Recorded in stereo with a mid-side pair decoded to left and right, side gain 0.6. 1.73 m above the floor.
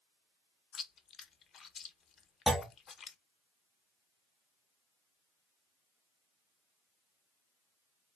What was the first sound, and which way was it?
Chewing, 40° left.